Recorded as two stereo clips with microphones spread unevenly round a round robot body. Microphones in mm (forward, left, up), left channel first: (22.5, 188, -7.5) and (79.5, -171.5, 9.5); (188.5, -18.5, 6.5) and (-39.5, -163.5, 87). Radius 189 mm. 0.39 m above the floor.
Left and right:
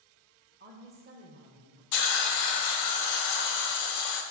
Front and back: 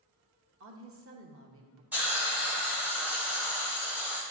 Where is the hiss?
115° left, 0.6 m.